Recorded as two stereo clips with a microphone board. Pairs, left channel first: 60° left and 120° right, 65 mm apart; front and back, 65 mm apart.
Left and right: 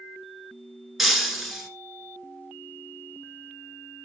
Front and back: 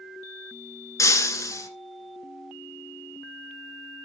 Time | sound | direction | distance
1.0 | breaking glass | 35° right | 1.5 m